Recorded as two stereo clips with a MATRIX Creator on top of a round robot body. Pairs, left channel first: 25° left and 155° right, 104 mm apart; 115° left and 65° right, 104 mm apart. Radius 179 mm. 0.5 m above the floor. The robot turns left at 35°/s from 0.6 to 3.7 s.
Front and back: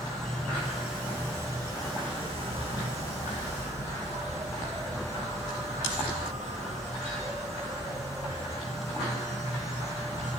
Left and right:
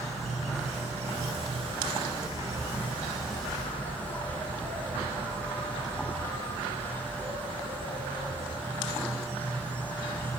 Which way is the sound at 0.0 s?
65° right.